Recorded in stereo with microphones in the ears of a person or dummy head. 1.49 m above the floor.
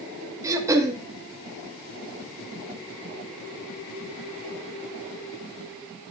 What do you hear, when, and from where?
0.4 s throat clearing: 15° right (ahead or behind), 1.5 m